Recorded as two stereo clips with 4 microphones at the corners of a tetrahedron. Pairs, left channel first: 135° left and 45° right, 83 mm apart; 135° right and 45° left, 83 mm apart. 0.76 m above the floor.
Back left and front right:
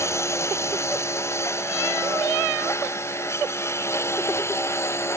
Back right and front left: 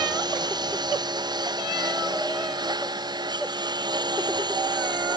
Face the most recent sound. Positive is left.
turn(degrees=80)